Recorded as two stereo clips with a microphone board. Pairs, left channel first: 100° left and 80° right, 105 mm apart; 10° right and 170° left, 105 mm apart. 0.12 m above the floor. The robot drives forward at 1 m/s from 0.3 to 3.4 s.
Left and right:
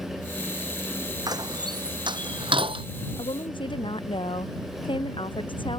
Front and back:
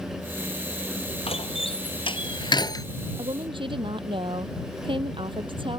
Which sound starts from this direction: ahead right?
A door slam, at 1.3 s.